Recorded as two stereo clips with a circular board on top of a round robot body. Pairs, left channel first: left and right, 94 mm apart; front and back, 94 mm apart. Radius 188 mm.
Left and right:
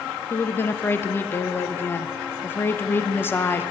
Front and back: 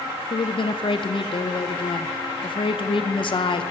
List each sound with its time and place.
0.3 s a woman speaking: 25° left, 1.1 m